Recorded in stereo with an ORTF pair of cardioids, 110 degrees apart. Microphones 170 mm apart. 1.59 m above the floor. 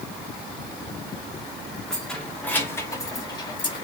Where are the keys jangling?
Straight ahead, 3 m; by 3.8 s 35° left, 2.5 m.